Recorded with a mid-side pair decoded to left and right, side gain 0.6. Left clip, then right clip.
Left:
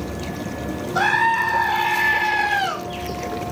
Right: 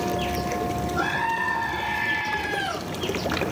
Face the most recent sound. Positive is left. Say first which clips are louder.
# left 9 dB
turn(degrees=55)